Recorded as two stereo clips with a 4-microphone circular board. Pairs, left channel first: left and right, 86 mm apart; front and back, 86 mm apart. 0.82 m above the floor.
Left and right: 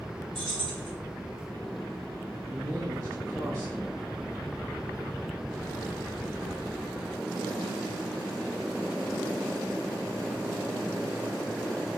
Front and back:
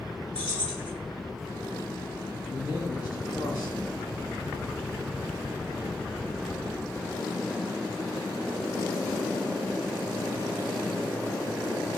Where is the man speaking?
45° right, 2 m.